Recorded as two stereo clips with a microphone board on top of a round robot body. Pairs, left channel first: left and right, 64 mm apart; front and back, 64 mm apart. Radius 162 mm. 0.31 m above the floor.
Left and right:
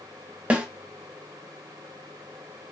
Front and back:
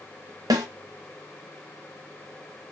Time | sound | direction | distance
0.5 | a snare drum | 160° right | 0.6 m